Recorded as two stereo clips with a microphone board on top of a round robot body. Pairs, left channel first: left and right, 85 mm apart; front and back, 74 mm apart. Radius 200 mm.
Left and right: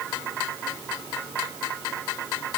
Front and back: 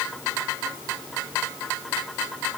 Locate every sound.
Only background noise.